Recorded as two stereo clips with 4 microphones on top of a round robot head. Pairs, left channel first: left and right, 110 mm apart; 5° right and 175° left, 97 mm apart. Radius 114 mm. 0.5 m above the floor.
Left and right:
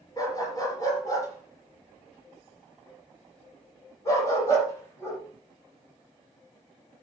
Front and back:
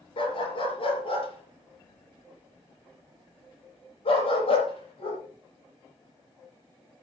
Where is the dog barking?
25° left, 4 m; by 5.2 s 20° left, 8 m.